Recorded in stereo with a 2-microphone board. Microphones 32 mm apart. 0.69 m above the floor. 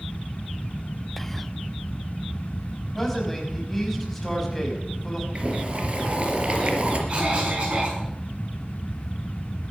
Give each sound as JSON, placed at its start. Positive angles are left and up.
{"t": 1.2, "sound": "whispering", "side_deg": 5, "distance_m": 0.6}
{"t": 3.0, "sound": "a man speaking", "side_deg": 10, "distance_m": 5.5}
{"t": 5.3, "sound": "boiling", "side_deg": -40, "distance_m": 3.5}
{"t": 7.1, "sound": "a cough", "side_deg": -40, "distance_m": 6.5}